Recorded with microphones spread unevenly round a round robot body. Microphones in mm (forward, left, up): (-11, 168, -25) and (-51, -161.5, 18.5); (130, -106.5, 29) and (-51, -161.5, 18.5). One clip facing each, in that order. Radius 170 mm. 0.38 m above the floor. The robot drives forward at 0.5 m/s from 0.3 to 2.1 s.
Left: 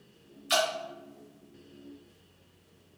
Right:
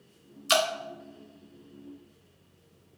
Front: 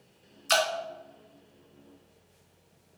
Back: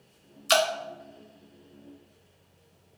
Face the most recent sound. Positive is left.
turn(degrees=-145)